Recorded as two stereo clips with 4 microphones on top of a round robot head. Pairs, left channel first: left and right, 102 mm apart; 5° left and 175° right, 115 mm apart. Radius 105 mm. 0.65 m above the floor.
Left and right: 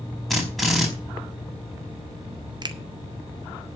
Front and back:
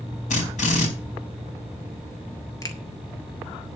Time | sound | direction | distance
0.3 | a drill | straight ahead | 4.5 m
2.6 | a finger snap | 55° right | 1.7 m